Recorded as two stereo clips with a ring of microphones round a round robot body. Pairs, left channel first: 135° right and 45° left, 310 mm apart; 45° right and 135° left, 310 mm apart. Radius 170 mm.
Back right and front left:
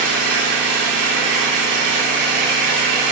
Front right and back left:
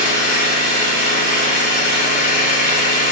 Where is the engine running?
20° left, 1.7 m.